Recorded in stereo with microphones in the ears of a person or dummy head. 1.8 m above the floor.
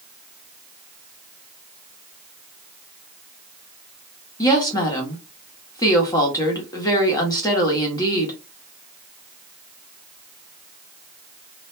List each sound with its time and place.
4.4 s a woman speaking: 25° left (ahead or behind), 0.9 m